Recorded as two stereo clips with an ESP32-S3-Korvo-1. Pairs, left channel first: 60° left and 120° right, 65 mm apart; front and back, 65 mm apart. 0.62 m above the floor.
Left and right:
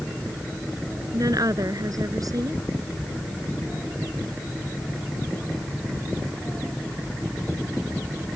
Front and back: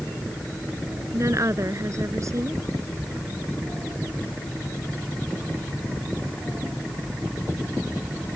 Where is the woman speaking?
140° right.